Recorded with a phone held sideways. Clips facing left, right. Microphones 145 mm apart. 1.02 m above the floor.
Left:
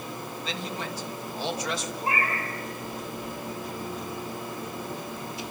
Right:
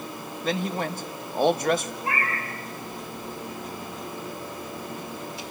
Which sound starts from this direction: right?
A man speaking, at 0.4 s.